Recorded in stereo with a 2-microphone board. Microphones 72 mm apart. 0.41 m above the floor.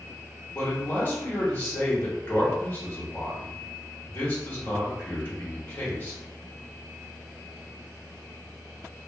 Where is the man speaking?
35° left (ahead or behind), 1.0 m.